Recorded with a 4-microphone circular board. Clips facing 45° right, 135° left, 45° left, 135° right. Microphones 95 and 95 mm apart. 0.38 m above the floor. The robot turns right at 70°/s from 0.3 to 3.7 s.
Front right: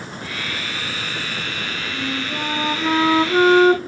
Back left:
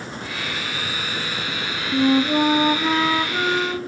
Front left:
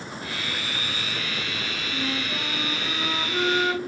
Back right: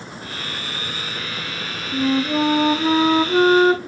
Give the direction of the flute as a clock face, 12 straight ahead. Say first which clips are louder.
Back left 12 dB, back right 13 dB; 7 o'clock.